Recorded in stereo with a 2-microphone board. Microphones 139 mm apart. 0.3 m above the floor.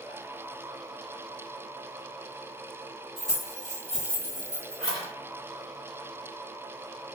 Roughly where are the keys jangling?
Right.